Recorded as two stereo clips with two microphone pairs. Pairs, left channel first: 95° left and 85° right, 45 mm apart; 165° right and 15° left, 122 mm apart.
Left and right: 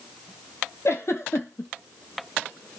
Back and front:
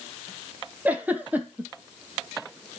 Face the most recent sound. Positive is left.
turn(degrees=95)